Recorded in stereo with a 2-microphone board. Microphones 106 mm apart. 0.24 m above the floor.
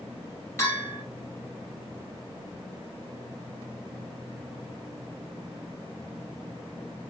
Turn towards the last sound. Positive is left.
turn(degrees=25)  # may be behind; listen again after turning